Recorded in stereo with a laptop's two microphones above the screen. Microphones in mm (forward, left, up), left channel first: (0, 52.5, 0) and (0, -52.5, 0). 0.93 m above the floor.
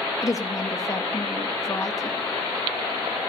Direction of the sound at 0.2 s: 30° left (ahead or behind).